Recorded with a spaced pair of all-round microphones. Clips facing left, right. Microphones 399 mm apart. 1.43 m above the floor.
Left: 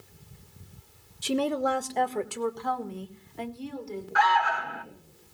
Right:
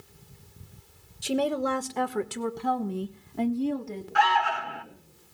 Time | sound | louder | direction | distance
1.2 | a woman speaking | even | 15° left (ahead or behind) | 1.0 m
4.2 | an alarm | right 1 dB | 45° right (ahead or behind) | 1.0 m